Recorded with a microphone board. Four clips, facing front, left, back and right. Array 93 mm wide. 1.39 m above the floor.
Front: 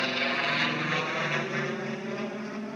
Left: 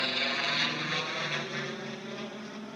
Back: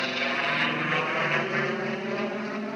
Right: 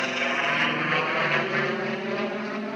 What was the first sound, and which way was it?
An aircraft, 95° right.